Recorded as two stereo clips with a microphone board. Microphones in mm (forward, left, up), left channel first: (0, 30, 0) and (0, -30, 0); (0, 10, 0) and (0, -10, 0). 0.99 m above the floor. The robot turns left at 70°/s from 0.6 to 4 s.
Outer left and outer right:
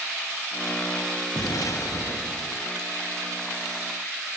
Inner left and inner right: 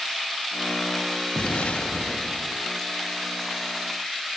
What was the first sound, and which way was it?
An explosion, 100° left.